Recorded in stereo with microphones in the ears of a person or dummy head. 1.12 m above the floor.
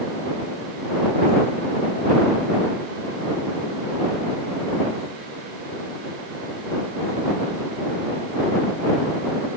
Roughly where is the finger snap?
I don't hear a finger snap.